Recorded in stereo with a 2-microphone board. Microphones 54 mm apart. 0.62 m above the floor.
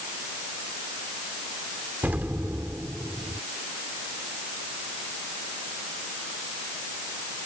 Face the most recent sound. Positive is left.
turn(degrees=-35)  # may be behind; listen again after turning